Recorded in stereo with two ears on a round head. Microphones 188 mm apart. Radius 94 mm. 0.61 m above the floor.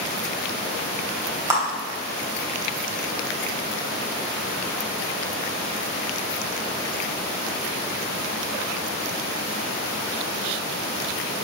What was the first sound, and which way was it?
A clap, 15° right (ahead or behind).